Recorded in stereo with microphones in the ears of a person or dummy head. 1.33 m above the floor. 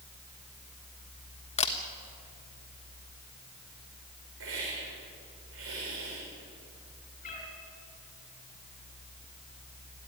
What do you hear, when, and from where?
1.6 s a camera shutter: 30° left (ahead or behind), 1.3 m
4.4 s a hiss: 70° right (ahead or behind), 5 m
7.2 s a cat meowing: 40° left (ahead or behind), 5 m